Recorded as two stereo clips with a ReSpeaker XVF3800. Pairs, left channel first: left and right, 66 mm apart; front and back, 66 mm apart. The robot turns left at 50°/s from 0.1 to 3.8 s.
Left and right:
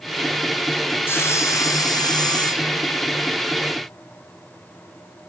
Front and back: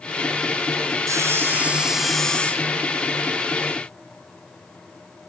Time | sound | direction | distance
1.1 | sawing | 145° left | 2.5 m